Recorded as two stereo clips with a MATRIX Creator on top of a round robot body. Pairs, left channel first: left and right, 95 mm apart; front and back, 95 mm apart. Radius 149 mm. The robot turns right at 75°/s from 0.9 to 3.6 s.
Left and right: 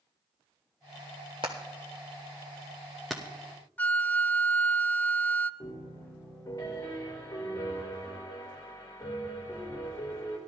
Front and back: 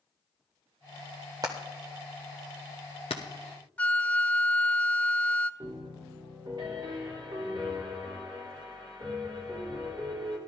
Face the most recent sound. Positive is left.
turn(degrees=140)